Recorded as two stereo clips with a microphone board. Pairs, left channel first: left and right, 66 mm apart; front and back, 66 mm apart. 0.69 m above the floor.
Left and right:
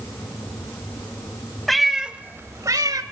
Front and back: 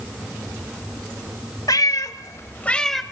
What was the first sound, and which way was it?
A cat meowing, 5° left.